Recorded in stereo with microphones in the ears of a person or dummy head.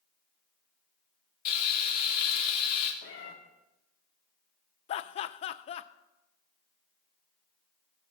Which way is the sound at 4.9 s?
35° left (ahead or behind).